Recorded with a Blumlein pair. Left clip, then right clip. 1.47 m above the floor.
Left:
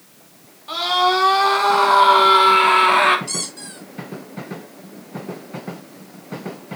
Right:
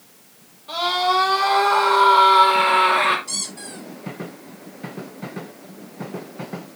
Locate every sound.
0.7 s a scream: 65° left, 4 m
3.3 s a squeak: 70° left, 5.5 m